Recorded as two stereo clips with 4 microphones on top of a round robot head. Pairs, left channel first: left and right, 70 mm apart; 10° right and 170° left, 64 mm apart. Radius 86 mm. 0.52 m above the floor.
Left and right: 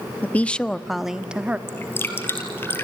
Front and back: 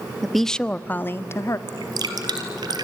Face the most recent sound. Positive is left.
turn(degrees=150)